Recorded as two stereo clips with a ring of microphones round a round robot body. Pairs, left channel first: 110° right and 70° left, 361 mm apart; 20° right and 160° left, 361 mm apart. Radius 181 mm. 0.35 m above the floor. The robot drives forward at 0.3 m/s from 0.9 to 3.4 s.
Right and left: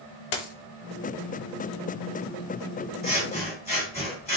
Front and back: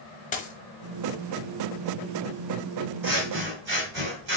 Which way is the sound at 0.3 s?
95° right.